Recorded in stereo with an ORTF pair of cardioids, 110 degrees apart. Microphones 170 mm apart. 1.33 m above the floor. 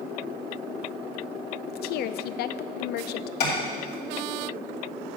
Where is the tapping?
70° left, 2.5 m.